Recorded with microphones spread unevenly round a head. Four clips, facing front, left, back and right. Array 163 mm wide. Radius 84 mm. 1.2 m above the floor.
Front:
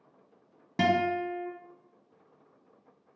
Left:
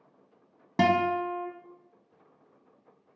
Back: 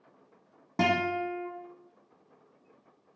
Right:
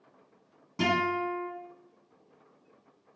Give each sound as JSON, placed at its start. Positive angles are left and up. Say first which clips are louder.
{"t": 0.8, "sound": "a guitar", "louder": "left 4 dB, front 1 dB", "azimuth_deg": 70, "distance_m": 1.3}